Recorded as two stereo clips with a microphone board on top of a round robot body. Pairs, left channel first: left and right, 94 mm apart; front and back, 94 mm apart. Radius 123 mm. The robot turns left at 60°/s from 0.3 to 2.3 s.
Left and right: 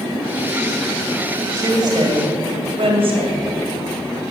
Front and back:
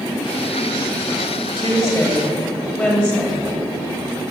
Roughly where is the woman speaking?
Ahead right.